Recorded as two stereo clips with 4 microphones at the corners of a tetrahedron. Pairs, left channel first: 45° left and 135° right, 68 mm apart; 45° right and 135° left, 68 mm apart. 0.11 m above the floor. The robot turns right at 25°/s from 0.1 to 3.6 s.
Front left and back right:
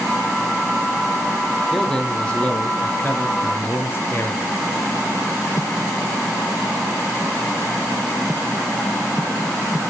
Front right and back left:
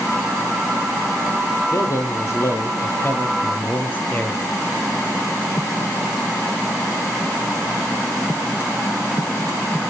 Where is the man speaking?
40° right, 1.9 m; by 4.5 s 10° left, 1.9 m.